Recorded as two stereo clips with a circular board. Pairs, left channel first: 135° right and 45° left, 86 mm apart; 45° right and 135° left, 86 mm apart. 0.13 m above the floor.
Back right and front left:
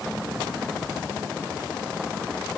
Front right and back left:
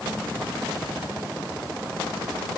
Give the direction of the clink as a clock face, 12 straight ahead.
I don't hear a clink.